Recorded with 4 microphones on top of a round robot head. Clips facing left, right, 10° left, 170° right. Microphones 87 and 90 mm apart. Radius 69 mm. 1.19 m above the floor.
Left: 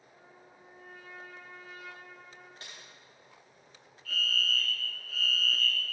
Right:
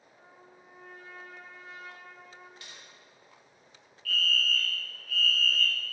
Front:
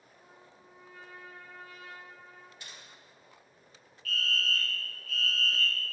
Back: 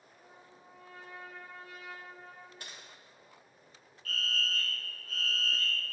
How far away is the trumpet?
About 2.5 m.